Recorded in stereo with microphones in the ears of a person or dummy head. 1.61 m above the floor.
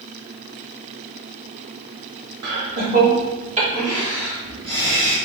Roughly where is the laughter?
Right.